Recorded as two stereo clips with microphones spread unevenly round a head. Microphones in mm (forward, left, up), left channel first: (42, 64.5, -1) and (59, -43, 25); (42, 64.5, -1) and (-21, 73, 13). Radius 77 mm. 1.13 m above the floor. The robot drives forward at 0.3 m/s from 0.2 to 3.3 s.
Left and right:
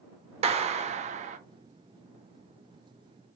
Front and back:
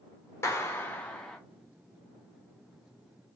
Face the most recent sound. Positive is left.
turn(degrees=-145)